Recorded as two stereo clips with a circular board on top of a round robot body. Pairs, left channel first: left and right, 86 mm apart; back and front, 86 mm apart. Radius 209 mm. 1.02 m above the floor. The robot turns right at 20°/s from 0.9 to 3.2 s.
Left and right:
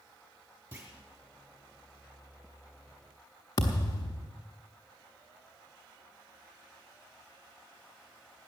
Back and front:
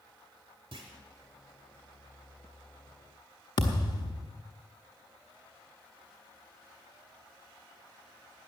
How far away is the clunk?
About 0.7 m.